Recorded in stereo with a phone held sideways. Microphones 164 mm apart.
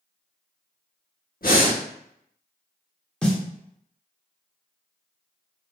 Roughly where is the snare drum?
Centre.